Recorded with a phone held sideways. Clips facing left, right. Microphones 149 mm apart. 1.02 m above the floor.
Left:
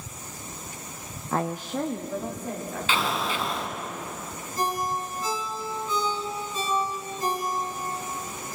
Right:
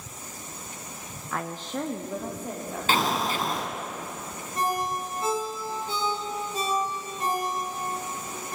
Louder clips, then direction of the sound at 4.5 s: Even; 85° right.